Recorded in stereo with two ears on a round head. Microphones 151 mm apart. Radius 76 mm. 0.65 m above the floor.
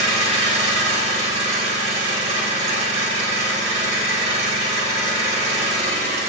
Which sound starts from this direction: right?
An engine running, at 0.0 s.